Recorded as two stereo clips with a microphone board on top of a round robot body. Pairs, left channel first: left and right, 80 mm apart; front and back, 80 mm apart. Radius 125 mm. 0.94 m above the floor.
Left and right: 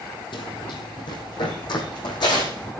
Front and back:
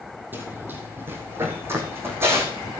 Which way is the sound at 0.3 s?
115° left.